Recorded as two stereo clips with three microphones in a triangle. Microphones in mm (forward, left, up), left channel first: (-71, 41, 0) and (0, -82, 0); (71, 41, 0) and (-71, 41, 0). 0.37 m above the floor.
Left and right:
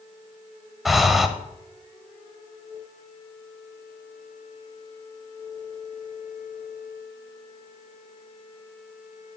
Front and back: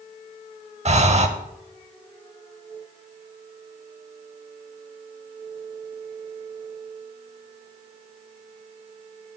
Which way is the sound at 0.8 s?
150° right.